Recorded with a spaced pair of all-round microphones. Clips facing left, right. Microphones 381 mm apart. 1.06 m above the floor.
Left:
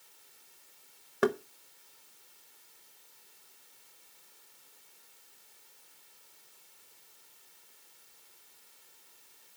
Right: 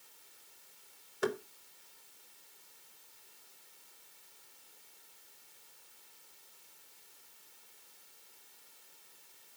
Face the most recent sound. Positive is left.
turn(degrees=70)  # may be behind; listen again after turning